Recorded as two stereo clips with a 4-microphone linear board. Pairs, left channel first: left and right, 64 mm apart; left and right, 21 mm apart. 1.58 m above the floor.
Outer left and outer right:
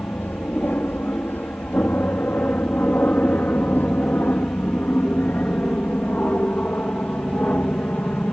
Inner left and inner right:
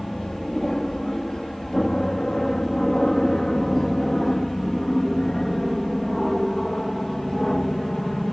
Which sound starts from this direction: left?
An aircraft, at 0.0 s.